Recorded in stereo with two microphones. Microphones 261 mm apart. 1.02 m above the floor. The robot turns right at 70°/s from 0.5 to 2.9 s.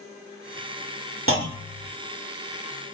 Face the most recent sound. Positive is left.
turn(degrees=55)